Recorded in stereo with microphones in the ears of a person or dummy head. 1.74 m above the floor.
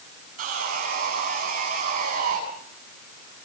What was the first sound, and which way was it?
Sawing, 40° right (ahead or behind).